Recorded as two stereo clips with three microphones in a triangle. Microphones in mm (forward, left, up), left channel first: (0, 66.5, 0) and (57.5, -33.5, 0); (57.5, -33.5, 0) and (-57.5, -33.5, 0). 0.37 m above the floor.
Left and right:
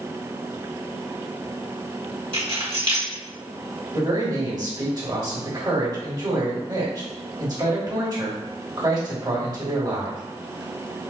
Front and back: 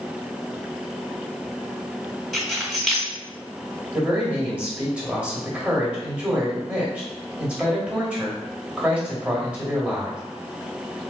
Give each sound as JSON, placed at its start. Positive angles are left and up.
{"t": 2.3, "sound": "keys jangling", "azimuth_deg": -90, "distance_m": 1.3}
{"t": 3.9, "sound": "a man speaking", "azimuth_deg": -100, "distance_m": 1.4}